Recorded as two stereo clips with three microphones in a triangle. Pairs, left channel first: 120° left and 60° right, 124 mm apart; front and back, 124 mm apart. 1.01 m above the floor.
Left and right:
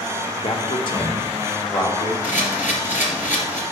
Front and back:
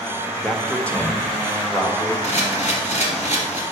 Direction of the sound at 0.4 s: 90° left.